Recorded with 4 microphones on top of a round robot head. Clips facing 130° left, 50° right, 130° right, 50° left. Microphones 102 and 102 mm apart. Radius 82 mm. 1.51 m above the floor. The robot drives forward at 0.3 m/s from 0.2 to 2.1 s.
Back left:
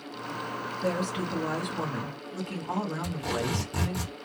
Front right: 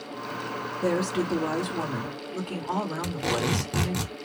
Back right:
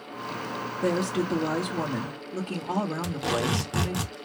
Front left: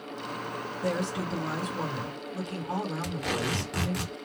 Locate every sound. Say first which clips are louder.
0.8 s a woman speaking: front right 5 dB, back right 5 dB; 105° right, 1.1 m; by 4.0 s 120° right, 1.2 m
3.0 s tape being pulled: front right 3 dB, back right 4 dB; 70° right, 1.2 m